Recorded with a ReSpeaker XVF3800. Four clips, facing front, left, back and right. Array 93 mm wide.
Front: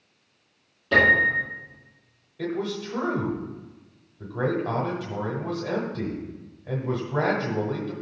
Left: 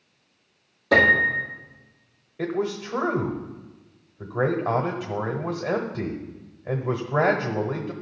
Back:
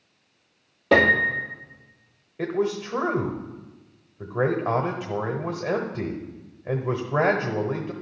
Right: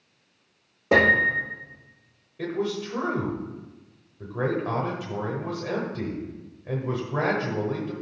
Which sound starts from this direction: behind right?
A piano, at 0.9 s.